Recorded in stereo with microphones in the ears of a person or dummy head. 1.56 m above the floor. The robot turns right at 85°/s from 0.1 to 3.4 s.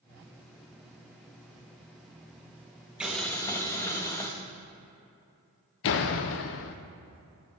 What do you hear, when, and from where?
3.0 s boiling: 10° right, 1.0 m; by 4.3 s 20° left, 1.0 m
5.8 s a door slam: 55° left (ahead or behind), 0.6 m